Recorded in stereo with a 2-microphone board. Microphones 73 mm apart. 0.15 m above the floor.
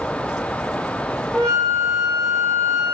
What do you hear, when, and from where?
1.3 s a flute: 15° left (ahead or behind), 5 m